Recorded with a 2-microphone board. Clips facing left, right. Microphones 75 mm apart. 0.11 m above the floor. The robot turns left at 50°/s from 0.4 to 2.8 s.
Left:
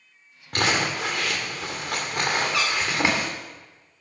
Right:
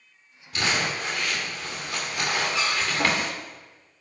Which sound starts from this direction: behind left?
Crumpling, at 0.5 s.